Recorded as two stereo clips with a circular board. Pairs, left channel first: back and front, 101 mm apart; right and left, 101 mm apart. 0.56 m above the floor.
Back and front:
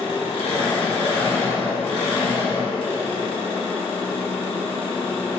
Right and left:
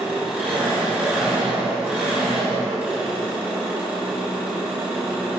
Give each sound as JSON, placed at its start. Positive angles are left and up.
{"t": 0.0, "sound": "an engine running", "azimuth_deg": 165, "distance_m": 0.8}